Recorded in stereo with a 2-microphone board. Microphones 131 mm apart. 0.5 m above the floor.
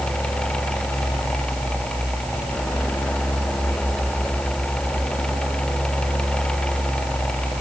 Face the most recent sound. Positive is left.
No sound to turn to.